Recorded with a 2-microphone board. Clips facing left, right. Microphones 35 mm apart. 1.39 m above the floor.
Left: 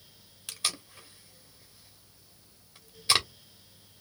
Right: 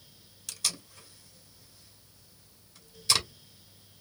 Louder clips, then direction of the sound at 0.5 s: Left 2 dB; 30° left (ahead or behind).